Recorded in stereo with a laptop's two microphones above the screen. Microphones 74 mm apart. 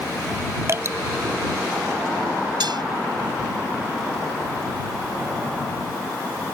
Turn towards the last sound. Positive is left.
turn(degrees=-75)  # may be behind; listen again after turning